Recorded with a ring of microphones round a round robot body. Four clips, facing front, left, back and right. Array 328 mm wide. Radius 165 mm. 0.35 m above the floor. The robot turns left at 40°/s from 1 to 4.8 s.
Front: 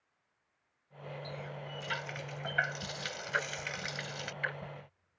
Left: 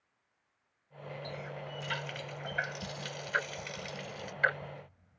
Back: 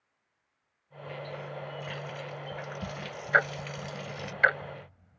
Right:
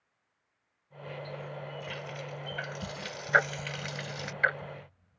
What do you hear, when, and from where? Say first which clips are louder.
1.2 s a running tap: even, back 5 dB; 70° left; by 4.3 s 55° right
3.3 s ticking: right 9 dB, back 11 dB; 135° right; by 5.2 s 170° left